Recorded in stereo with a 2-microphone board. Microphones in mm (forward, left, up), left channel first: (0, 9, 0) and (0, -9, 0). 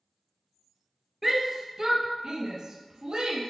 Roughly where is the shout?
Centre.